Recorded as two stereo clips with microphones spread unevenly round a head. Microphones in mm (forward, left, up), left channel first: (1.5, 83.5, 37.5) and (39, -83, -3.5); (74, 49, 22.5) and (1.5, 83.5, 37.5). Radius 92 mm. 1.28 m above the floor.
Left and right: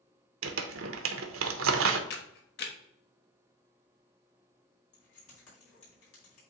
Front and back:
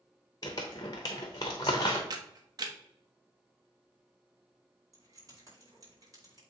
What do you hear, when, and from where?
0.4 s crumpling: 95° right, 0.8 m
2.1 s a camera shutter: 130° left, 1.0 m
4.9 s keys jangling: 110° left, 3.5 m